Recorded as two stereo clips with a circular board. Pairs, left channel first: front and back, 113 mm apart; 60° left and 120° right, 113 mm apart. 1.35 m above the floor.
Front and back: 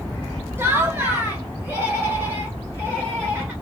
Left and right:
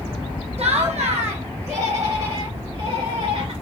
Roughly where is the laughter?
Right.